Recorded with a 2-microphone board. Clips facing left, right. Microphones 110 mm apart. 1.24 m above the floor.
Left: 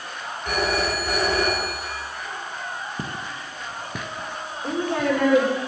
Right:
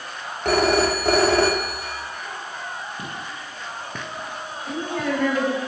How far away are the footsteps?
About 2 m.